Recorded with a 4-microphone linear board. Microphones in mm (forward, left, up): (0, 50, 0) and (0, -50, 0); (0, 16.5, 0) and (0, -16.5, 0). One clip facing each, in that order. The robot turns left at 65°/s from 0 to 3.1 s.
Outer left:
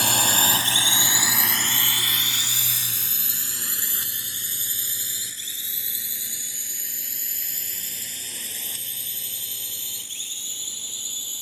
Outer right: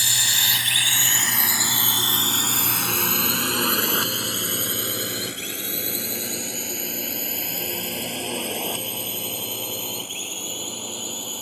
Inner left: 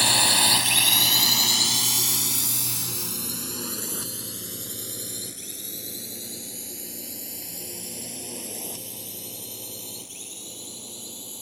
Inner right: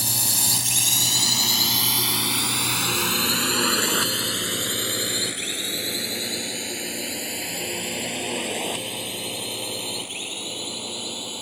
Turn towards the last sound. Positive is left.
turn(degrees=-60)  # may be behind; listen again after turning